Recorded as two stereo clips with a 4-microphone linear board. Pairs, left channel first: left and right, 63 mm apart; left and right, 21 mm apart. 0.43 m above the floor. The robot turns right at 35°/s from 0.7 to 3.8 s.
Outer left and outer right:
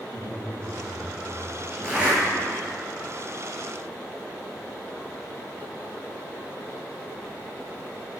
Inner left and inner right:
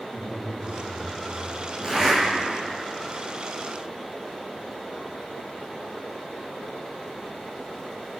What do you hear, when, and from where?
0.1 s a man speaking: 60° right, 3.5 m; by 2.4 s 5° right, 3.5 m
1.8 s a zipper: 15° right (ahead or behind), 6 m; by 2.2 s 25° right (ahead or behind), 6 m